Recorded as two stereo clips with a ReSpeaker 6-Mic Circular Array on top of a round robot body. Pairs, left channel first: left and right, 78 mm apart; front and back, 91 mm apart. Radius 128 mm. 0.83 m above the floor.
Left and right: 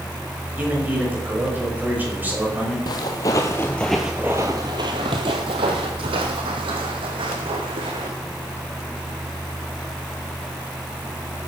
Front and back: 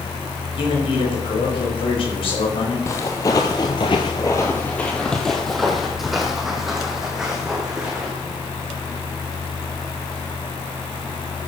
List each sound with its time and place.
0.6 s a man speaking: 25° right, 6 m
2.9 s footsteps: 60° left, 1.1 m; by 8.1 s 95° right, 2.5 m